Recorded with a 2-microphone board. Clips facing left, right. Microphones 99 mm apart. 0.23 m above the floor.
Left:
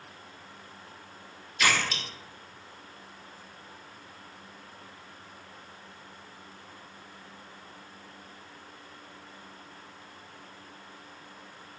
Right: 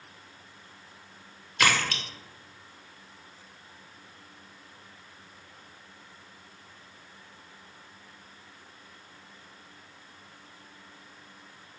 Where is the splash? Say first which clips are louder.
Right 2 dB; 65° right (ahead or behind), 0.9 m.